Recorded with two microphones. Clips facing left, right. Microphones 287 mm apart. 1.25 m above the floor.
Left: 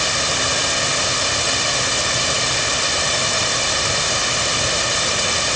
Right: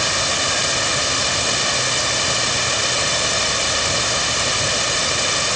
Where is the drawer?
I don't hear a drawer.